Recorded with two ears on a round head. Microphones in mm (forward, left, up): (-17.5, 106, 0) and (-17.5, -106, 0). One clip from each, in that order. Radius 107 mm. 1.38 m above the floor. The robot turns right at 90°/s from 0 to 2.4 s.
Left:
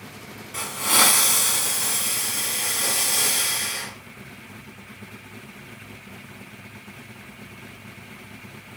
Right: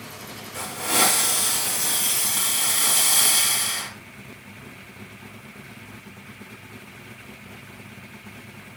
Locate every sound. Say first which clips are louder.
0.5 s a hiss: left 2 dB; 70° left, 4.5 m; by 3.9 s 125° right, 4.5 m